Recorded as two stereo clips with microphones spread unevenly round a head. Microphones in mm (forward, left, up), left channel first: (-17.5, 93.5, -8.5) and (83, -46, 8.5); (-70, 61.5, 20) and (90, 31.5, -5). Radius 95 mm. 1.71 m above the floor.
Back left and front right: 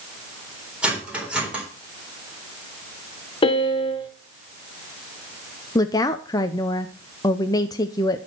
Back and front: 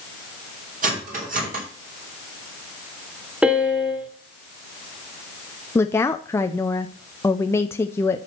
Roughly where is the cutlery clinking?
Ahead left.